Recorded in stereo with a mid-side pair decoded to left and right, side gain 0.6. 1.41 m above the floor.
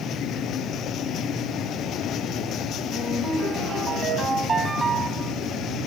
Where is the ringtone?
20° right, 7.5 m.